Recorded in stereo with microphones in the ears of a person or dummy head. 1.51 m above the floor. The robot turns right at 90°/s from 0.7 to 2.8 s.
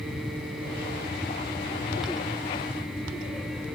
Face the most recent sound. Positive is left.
No sound to turn to.